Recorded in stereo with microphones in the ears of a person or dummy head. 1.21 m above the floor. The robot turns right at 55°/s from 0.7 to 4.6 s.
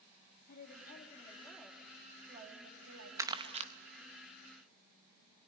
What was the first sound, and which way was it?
A woman speaking, 120° left.